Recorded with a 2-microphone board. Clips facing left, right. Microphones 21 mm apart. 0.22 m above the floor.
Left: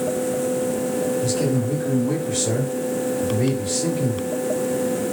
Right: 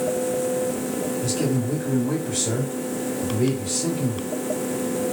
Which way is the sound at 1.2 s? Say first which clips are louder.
Left 2 dB; 15° left (ahead or behind).